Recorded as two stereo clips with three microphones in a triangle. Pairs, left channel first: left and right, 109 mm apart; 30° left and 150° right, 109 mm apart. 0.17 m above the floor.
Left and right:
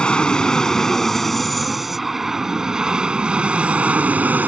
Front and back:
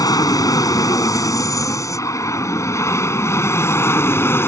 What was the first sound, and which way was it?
An aircraft, 15° left.